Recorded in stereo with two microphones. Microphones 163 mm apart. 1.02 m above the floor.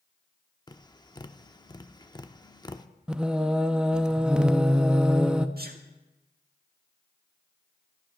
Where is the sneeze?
70° right (ahead or behind), 1.7 m.